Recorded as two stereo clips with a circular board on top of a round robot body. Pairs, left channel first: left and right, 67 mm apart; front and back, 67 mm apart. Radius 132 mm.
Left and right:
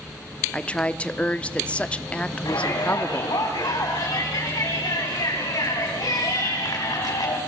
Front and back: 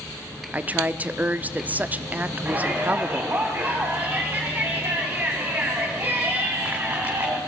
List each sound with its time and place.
0.5 s a woman speaking: 140° left, 1.0 m
2.5 s a shout: 115° left, 4 m